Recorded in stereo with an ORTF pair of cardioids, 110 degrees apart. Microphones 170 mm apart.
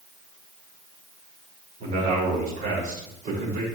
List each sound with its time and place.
1.8 s a man speaking: 55° right, 3 m